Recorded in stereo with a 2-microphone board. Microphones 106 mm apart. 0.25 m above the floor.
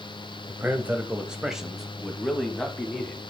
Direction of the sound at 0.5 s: 15° right (ahead or behind).